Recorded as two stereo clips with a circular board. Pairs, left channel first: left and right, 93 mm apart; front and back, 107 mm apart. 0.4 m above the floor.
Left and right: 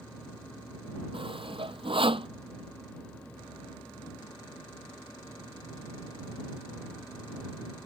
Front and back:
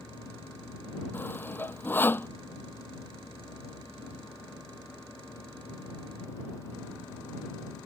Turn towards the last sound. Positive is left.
turn(degrees=-70)